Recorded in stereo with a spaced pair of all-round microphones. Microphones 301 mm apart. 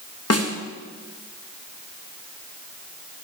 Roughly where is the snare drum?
Left.